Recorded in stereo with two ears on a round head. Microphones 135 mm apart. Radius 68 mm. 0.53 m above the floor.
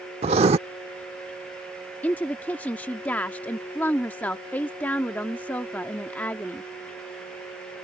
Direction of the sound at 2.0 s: 10° left (ahead or behind).